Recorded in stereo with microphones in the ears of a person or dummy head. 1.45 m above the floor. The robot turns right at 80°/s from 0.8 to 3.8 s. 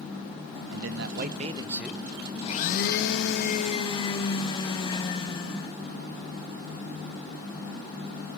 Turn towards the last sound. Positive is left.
turn(degrees=150)